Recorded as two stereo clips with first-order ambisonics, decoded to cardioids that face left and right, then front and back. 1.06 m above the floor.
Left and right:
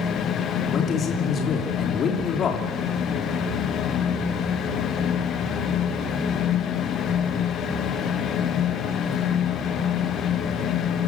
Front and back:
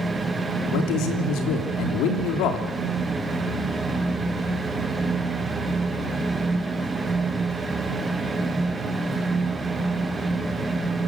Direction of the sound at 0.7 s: 25° left.